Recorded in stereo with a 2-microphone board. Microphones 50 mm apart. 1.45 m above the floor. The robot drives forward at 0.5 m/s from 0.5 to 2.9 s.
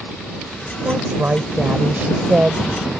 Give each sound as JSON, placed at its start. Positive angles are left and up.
{"t": 0.8, "sound": "a woman speaking", "side_deg": -40}